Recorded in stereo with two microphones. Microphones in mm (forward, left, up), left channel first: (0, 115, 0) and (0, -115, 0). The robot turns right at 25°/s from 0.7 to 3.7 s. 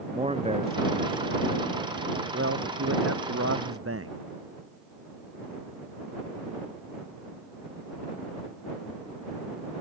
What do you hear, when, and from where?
0.1 s a man speaking: 155° right; by 4.2 s 80° right